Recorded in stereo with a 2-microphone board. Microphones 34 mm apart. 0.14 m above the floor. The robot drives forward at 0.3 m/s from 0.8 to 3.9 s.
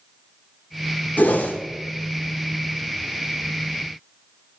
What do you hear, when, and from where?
1.2 s a whoosh: 50° left (ahead or behind), 1.1 m; by 1.6 s 55° left (ahead or behind), 1.0 m